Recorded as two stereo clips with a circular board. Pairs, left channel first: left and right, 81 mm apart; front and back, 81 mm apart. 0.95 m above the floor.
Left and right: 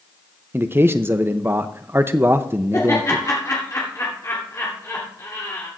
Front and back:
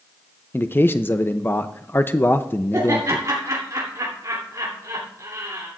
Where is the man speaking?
45° right, 0.6 m.